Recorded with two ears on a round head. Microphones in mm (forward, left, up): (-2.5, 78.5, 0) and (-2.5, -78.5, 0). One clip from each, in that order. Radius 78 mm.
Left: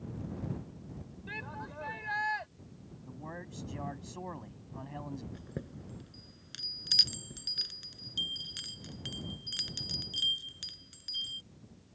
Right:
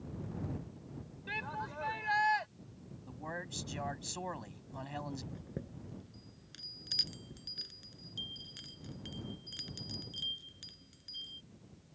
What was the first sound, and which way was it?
A shout, 25° right (ahead or behind).